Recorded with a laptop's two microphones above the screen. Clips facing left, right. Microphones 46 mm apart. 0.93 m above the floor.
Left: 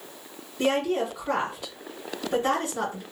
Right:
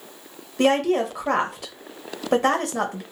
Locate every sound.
0.6 s a woman speaking: 70° right (ahead or behind), 1.0 m